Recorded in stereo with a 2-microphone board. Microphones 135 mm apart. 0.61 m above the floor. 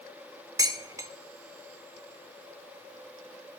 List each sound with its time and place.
0.6 s dishes clattering: 25° right (ahead or behind), 0.9 m